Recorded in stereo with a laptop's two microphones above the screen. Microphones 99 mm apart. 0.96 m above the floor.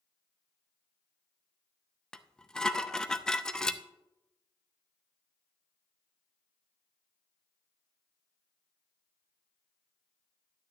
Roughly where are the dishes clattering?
Centre.